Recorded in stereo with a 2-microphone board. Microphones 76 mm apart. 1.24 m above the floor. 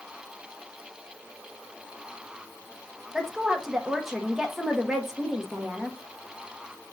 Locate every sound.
3.1 s a woman speaking: 5° right (ahead or behind), 1.0 m